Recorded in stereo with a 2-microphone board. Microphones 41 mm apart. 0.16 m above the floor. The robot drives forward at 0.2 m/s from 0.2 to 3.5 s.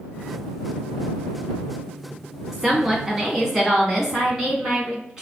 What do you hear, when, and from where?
2.5 s a woman speaking: 15° right (ahead or behind), 1.1 m; by 5.2 s 10° right (ahead or behind), 1.2 m